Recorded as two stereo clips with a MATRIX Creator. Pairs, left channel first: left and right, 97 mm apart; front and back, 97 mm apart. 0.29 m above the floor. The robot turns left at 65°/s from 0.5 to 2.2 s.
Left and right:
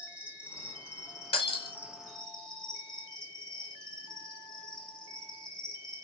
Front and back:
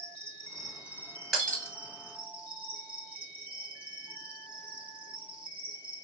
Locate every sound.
0.0 s an insect: 80° right, 0.9 m; by 6.0 s 170° left, 0.9 m
1.3 s breaking glass: 90° left, 1.2 m; by 1.8 s 65° left, 1.2 m